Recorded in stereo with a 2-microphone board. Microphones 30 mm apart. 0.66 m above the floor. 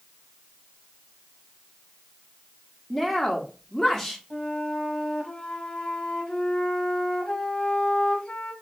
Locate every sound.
2.9 s a woman speaking: centre (ahead or behind), 1.1 m
4.3 s a flute: 35° left (ahead or behind), 1.3 m